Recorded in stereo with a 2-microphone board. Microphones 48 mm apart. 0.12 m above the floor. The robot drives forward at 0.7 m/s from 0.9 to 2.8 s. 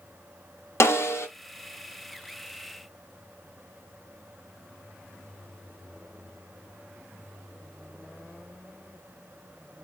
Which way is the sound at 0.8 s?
70° left (ahead or behind).